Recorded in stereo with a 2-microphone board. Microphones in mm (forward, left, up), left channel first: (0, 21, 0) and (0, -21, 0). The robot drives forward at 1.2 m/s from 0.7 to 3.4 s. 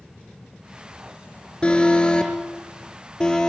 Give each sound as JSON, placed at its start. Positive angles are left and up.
{"t": 1.6, "sound": "an alarm", "side_deg": 25, "distance_m": 4.5}